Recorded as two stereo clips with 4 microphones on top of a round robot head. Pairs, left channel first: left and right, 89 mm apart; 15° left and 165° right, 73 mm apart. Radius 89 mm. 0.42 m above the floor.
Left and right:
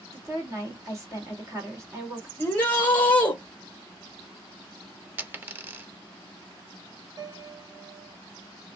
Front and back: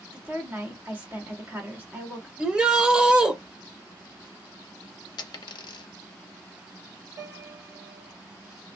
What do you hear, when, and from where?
0.1 s a woman speaking: 115° right, 1.7 m
2.4 s a shout: 135° left, 0.8 m
5.2 s a dropped coin: 20° right, 0.5 m
7.2 s a piano: 135° right, 1.1 m